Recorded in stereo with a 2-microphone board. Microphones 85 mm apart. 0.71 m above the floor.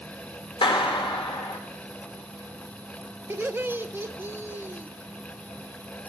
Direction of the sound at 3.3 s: 25° right (ahead or behind).